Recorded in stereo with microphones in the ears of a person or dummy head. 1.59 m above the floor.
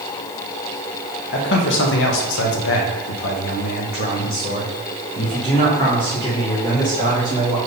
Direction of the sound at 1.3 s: 65° left (ahead or behind).